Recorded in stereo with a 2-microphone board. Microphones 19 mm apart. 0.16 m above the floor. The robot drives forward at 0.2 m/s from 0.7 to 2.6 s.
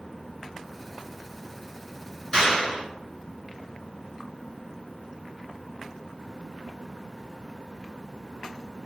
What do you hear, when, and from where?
2.3 s a clap: 25° left (ahead or behind), 1.7 m